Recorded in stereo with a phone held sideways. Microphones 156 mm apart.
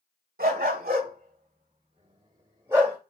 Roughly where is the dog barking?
Right.